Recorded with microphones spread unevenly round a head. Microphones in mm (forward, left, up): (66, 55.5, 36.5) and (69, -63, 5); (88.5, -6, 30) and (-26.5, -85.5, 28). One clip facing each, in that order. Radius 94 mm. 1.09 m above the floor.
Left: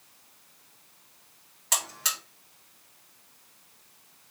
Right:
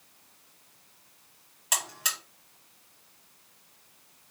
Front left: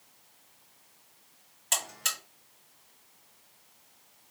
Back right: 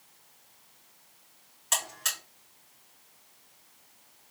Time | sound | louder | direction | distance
1.7 | a buzzer | left 1 dB, back right 1 dB | 20° right | 3.5 m